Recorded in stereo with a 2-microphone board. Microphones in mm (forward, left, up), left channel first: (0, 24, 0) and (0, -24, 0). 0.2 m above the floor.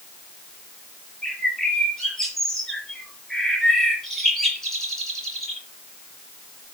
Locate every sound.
1.2 s a bird: 10° left (ahead or behind), 5 m